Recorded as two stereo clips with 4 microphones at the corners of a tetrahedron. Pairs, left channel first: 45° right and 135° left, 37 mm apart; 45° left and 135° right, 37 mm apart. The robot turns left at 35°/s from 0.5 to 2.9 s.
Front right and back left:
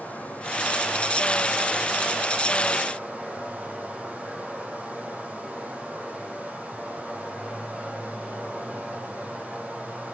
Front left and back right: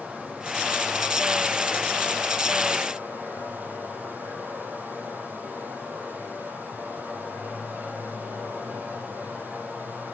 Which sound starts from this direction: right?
Running water, at 0.0 s.